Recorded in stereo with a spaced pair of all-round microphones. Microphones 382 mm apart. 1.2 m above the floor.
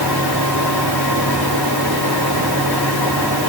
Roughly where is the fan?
Left.